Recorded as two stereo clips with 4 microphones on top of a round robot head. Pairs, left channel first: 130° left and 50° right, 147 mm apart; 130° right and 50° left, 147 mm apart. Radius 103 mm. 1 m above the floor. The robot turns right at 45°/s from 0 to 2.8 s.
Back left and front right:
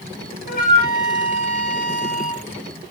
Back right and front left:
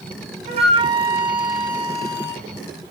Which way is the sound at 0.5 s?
95° left.